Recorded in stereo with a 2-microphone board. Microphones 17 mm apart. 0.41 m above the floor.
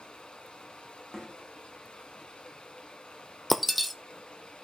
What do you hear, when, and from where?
0.0 s running water: 75° left (ahead or behind), 2.5 m
1.1 s a snare drum: 35° left (ahead or behind), 6.5 m
3.5 s breaking glass: centre (ahead or behind), 0.9 m